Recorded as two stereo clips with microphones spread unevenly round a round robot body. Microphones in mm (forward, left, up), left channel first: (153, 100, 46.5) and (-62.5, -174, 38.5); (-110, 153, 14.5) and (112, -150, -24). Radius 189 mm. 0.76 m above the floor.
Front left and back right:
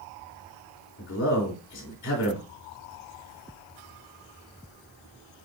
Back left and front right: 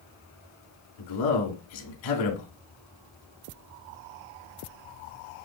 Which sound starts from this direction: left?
A man speaking, at 1.0 s.